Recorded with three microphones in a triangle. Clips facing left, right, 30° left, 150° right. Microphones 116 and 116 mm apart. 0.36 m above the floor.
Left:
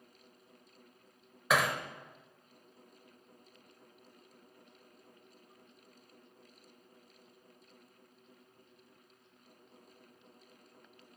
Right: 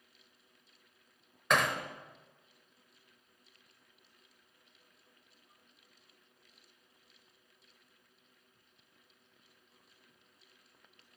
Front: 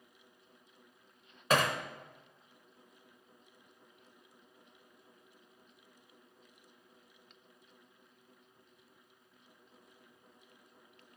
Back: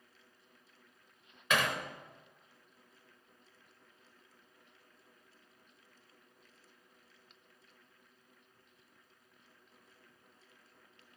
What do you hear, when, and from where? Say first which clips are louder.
1.5 s hammering: even, front 3 dB; 10° left, 0.8 m